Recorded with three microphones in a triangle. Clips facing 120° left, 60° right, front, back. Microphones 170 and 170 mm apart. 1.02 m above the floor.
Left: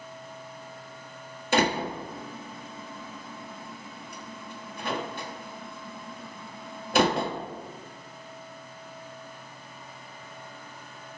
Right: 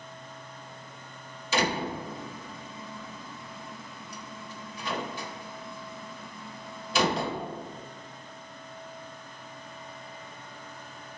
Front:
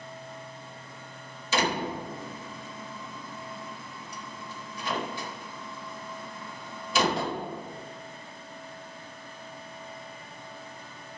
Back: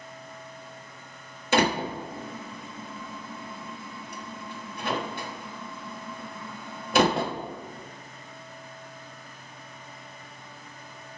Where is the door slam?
150° left, 1.1 m.